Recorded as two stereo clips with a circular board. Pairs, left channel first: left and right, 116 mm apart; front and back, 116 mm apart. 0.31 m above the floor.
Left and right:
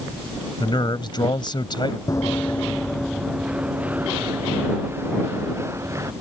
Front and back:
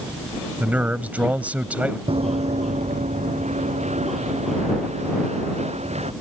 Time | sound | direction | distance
0.6 | a man speaking | 110° left | ?
2.1 | running footsteps | 150° left | ?